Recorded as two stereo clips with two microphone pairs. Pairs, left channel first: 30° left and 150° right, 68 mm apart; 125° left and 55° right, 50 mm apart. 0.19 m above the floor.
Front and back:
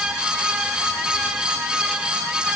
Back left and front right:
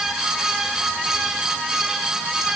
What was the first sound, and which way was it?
Only background noise.